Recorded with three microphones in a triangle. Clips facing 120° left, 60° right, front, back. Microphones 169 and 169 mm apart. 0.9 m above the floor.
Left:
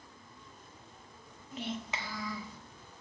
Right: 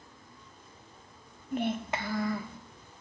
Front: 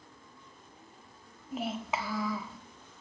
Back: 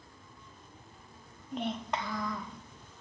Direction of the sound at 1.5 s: 85° right.